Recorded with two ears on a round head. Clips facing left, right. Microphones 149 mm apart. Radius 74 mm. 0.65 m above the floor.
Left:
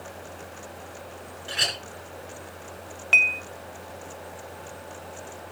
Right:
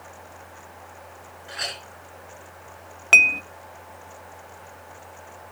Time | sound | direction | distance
1.5 | a clink | 35° left (ahead or behind) | 4 m
3.1 | dishes clattering | 60° right (ahead or behind) | 0.6 m